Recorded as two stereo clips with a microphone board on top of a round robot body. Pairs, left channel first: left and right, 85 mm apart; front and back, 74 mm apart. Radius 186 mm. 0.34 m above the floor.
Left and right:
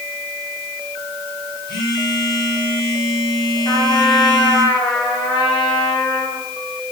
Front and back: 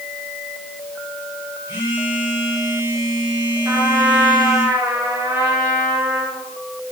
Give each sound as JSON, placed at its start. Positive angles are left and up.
{"t": 1.7, "sound": "a phone buzzing", "azimuth_deg": 120, "distance_m": 5.5}
{"t": 3.6, "sound": "a trumpet", "azimuth_deg": 115, "distance_m": 8.5}